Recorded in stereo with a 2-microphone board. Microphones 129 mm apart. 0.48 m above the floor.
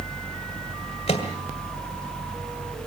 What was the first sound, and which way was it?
A microwave, 60° left (ahead or behind).